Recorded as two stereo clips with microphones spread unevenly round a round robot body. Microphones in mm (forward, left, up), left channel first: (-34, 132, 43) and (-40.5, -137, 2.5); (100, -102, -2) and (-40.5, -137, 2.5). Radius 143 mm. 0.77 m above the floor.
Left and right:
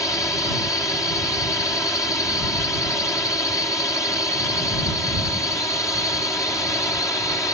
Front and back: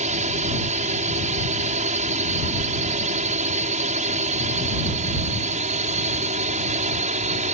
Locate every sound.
0.0 s a drone: 170° left